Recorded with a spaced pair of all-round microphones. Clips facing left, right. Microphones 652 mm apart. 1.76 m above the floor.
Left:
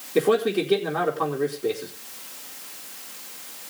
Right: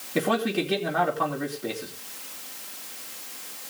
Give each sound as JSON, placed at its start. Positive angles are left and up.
{"t": 0.1, "sound": "a man speaking", "side_deg": -15, "distance_m": 4.0}